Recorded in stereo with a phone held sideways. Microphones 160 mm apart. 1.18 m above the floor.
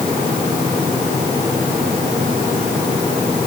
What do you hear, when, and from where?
Only background noise.